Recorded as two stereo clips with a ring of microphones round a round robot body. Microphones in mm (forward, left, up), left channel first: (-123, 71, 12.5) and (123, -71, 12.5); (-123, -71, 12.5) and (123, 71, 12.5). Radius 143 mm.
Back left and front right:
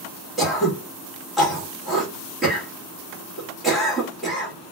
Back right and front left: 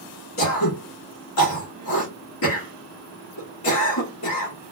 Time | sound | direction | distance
0.4 | throat clearing | 120° right | 1.6 m